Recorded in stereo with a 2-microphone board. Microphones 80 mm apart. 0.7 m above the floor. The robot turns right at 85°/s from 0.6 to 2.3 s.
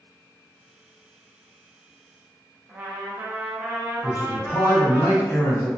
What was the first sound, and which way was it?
A trumpet, 20° right (ahead or behind).